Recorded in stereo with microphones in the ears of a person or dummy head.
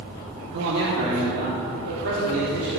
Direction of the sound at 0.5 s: 55° right (ahead or behind).